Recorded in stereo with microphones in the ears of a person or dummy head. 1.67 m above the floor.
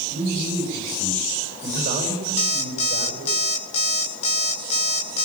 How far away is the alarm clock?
About 2.5 m.